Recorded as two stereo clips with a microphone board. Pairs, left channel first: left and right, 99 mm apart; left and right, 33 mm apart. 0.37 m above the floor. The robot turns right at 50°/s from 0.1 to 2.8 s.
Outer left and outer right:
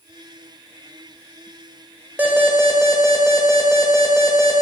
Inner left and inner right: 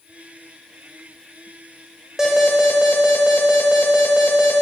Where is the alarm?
145° right, 1.2 m; by 4.6 s 115° right, 1.2 m.